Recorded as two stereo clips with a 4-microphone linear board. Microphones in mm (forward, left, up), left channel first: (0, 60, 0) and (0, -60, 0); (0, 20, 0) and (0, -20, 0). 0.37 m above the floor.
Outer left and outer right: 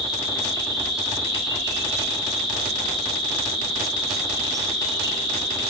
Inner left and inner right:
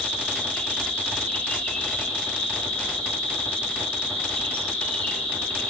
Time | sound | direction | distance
0.0 | an insect | 35° left (ahead or behind) | 1.6 m